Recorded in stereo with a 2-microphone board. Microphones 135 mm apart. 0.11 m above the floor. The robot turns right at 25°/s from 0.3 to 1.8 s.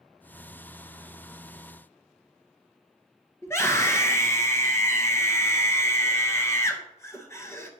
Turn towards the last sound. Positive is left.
turn(degrees=20)  # may be behind; listen again after turning